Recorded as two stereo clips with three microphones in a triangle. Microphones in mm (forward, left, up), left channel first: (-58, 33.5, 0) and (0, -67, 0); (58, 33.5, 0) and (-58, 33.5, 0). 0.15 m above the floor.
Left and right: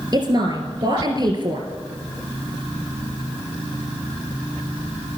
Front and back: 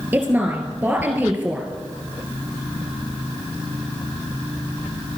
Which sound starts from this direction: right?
A woman speaking, at 0.1 s.